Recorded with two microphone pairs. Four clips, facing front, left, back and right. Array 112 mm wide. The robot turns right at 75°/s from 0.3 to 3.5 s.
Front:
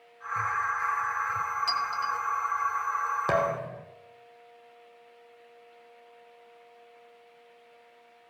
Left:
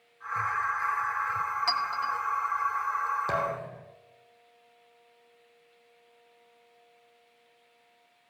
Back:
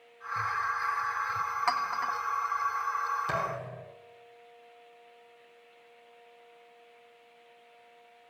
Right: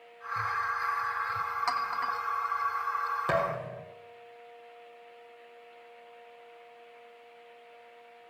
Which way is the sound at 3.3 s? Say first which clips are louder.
Right 1 dB, front 6 dB; 10° right.